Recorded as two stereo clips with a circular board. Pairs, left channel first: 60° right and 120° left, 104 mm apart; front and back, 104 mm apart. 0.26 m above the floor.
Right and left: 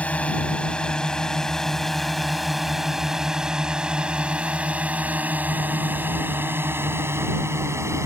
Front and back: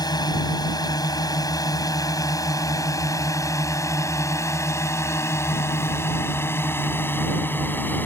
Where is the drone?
10° left; by 8.1 s 65° left.